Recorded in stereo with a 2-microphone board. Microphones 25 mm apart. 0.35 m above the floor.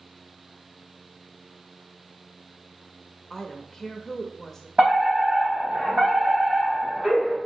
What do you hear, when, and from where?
3.3 s a woman speaking: 15° left (ahead or behind), 0.8 m
4.8 s a fire alarm: 40° right (ahead or behind), 3 m